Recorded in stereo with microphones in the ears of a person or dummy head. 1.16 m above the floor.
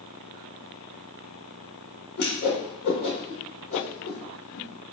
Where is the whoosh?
60° left (ahead or behind), 1.1 m.